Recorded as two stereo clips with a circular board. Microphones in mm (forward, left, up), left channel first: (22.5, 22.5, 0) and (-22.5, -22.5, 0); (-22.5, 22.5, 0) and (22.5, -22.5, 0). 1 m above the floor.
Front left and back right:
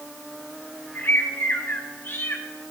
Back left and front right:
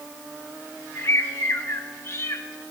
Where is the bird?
95° left, 1.5 m.